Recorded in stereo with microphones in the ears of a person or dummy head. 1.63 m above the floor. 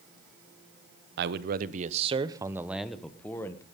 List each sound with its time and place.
1.2 s a man speaking: 65° right (ahead or behind), 1.1 m; by 3.6 s 15° left (ahead or behind), 1.4 m